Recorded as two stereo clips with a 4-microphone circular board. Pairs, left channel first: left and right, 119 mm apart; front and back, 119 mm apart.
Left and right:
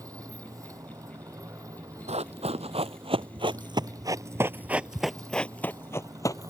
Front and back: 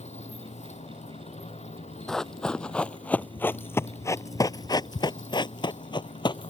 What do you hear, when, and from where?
0.0 s a motorcycle: 25° right
2.1 s running footsteps: 90° right; by 6.5 s 40° left